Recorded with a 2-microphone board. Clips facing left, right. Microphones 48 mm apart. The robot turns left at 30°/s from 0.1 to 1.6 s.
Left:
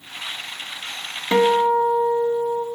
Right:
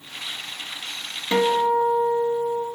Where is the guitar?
15° left (ahead or behind), 1.1 m; by 2.7 s 10° left (ahead or behind), 1.1 m.